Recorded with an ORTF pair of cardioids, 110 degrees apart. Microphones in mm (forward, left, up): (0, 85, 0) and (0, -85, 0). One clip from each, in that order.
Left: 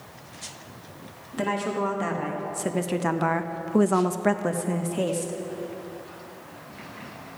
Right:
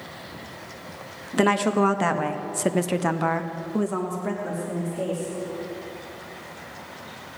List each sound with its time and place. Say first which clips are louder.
1.3 s a woman speaking: right 6 dB; 50° right, 1.4 m; by 5.3 s 70° left, 1.4 m